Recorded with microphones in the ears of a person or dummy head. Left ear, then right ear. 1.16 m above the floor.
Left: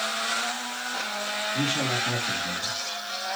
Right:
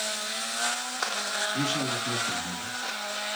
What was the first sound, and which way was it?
A man speaking, 40° right (ahead or behind).